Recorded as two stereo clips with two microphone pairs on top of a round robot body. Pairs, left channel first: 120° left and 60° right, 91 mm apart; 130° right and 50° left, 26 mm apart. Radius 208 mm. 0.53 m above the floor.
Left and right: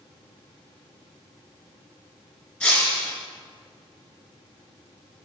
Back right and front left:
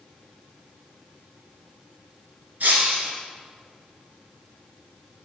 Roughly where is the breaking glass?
Ahead left.